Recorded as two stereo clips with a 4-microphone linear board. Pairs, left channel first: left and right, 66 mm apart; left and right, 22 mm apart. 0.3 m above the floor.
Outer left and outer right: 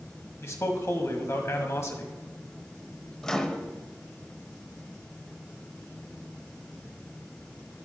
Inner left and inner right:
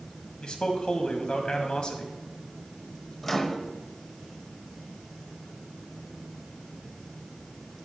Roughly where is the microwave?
Centre.